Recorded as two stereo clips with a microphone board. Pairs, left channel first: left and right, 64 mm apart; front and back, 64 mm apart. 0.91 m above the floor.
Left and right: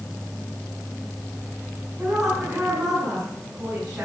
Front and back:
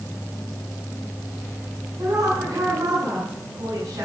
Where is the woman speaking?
160° right, 8.5 m.